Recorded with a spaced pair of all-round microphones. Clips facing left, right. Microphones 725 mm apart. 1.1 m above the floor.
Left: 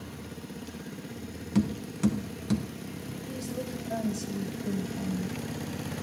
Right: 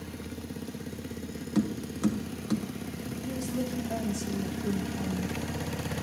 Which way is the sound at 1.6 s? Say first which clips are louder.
Left 1 dB; 50° left (ahead or behind).